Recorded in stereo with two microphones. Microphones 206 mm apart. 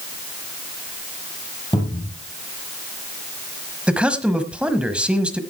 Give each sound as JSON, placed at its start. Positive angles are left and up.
{"t": 1.7, "sound": "a cupboard door", "side_deg": 20, "distance_m": 3.5}
{"t": 3.9, "sound": "a man speaking", "side_deg": -5, "distance_m": 1.3}